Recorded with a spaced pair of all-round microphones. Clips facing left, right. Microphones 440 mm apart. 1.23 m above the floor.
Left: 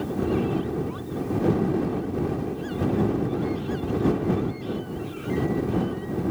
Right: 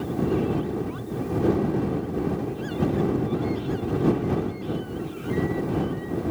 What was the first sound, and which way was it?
Only background noise.